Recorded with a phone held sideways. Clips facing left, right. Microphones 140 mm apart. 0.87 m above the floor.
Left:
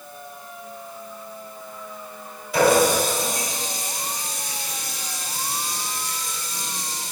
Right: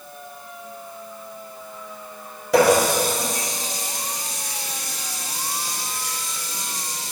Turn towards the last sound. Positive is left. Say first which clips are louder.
# right 1 dB
turn(degrees=-80)